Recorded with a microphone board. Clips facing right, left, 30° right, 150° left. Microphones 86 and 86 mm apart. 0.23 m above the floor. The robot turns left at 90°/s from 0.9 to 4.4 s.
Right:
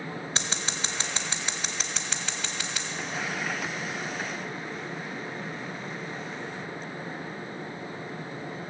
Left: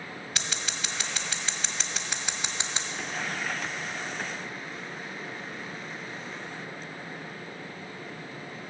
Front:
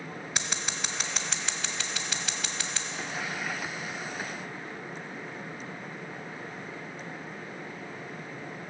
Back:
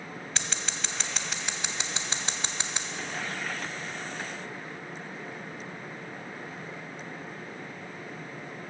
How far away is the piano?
No piano in this recording.